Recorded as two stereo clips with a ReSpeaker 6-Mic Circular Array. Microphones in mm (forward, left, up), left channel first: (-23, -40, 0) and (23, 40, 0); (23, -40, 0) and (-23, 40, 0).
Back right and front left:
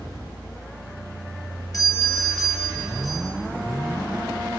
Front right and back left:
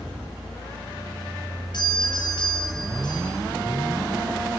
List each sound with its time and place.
1.7 s a doorbell: 80° right, 5 m